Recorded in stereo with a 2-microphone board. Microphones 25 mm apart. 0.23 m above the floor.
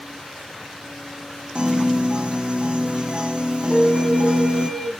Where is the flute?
15° left (ahead or behind), 1.6 m.